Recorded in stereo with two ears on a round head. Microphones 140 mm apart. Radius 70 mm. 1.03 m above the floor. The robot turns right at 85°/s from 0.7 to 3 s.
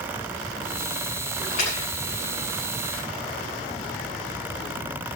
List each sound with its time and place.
1.4 s a splash: 75° left (ahead or behind), 9.5 m; by 1.9 s 35° left (ahead or behind), 9.5 m